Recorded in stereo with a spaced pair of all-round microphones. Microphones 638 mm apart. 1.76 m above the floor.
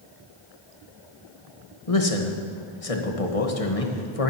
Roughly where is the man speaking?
Left.